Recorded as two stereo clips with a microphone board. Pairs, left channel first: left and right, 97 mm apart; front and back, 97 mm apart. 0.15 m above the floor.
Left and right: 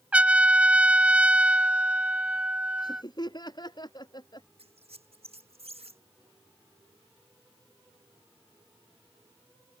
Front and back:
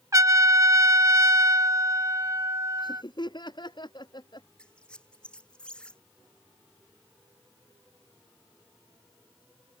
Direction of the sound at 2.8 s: 45° left.